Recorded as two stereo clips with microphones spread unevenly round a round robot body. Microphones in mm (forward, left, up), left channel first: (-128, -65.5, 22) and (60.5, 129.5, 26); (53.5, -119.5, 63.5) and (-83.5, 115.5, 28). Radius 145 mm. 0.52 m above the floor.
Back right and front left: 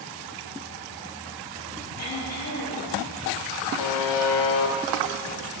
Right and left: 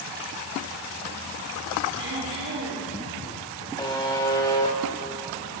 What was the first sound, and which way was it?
Throat clearing, 165° left.